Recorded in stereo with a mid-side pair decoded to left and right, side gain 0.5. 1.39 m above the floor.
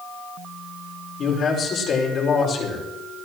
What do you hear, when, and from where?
1.2 s a man speaking: 55° left, 5.5 m